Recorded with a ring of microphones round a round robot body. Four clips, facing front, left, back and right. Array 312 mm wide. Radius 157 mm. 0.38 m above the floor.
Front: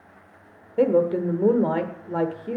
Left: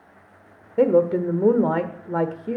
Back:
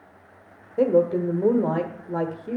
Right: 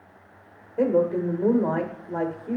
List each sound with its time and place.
0.8 s a woman speaking: 75° left, 1.2 m